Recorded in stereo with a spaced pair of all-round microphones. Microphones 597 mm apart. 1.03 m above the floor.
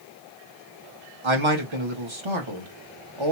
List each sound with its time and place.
1.2 s a man speaking: 55° right (ahead or behind), 1.4 m